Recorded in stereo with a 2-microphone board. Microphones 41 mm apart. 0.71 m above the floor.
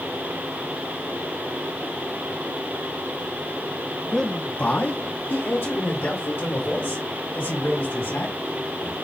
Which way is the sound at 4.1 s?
10° left (ahead or behind).